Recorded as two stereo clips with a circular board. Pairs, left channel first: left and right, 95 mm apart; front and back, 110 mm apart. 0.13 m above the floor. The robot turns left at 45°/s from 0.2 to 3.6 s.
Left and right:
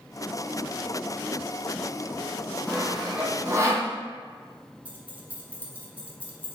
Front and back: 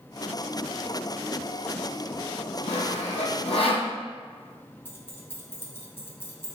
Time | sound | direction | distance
2.7 | sawing | 15° left | 0.9 m
4.8 | keys jangling | 35° right | 0.8 m